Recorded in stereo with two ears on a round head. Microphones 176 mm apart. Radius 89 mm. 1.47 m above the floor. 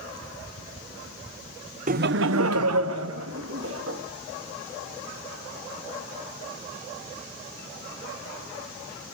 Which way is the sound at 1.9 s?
40° right (ahead or behind).